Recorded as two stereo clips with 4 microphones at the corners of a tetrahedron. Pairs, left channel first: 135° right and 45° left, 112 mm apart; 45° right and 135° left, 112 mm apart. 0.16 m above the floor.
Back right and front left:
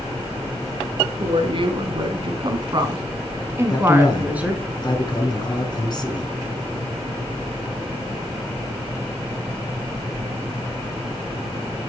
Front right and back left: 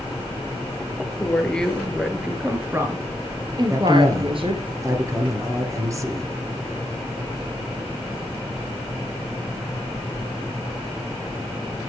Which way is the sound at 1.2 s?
30° left.